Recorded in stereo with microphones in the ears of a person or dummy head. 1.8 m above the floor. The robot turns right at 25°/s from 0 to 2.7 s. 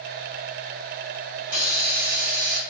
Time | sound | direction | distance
1.4 | a hiss | 135° right | 1.1 m